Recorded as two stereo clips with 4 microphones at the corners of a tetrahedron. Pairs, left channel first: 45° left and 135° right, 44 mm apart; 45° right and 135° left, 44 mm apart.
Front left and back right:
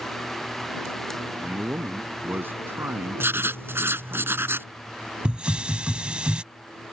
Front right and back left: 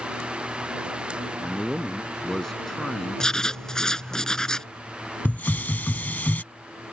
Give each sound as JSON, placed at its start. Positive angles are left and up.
{"t": 1.4, "sound": "a man speaking", "azimuth_deg": -125}
{"t": 3.2, "sound": "writing", "azimuth_deg": -120}
{"t": 5.2, "sound": "a hiss", "azimuth_deg": -80}